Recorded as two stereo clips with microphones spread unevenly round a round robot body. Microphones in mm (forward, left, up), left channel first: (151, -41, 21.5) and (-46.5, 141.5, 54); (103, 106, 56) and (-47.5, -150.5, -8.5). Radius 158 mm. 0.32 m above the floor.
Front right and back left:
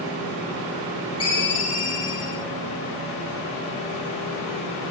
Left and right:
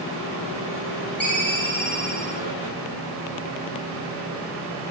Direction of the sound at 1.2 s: 35° right.